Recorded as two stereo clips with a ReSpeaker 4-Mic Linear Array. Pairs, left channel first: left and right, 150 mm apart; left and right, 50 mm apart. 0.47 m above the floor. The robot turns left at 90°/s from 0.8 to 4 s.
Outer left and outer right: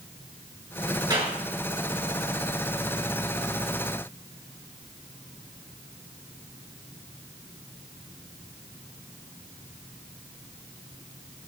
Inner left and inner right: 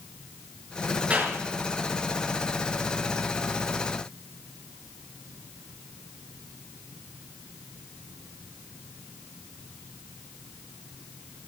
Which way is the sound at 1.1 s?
30° right (ahead or behind).